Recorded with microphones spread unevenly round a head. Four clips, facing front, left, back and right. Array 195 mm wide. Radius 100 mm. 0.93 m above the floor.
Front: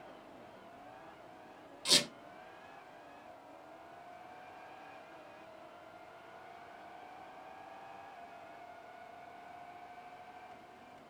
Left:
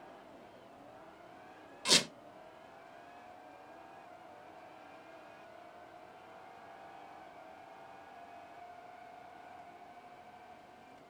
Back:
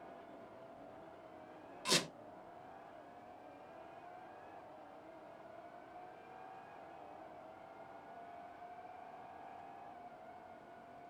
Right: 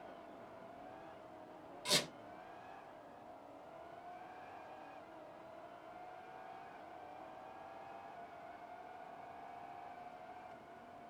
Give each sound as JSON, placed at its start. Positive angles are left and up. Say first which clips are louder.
{"t": 1.9, "sound": "a squeak", "louder": "left 5 dB, front 1 dB", "azimuth_deg": 85, "distance_m": 1.0}